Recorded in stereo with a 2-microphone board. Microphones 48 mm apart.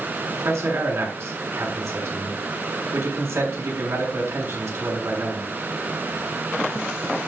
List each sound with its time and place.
0.4 s a man speaking: 80° right, 7 m